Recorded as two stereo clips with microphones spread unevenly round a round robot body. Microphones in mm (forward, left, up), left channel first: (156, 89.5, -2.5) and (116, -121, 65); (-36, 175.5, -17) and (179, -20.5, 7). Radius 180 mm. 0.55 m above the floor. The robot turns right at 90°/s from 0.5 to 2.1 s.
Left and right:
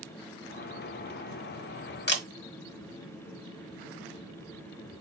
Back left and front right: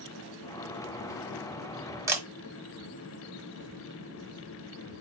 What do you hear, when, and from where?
2.1 s a camera shutter: 40° left, 1.5 m